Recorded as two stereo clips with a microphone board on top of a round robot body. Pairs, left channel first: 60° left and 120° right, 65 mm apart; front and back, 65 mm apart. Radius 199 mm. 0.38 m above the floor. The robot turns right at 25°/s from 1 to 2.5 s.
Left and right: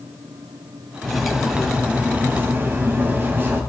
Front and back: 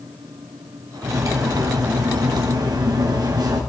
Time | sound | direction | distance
1.0 | cutlery clinking | 145° left | 2 m